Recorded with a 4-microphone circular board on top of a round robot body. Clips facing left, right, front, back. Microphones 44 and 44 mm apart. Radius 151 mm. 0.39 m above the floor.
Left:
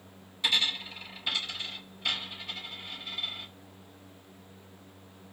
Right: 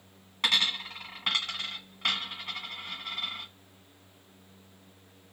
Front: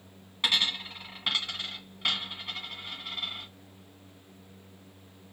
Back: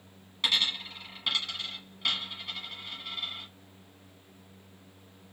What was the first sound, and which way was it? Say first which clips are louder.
A dropped coin: right 1 dB, front 1 dB; 65° right.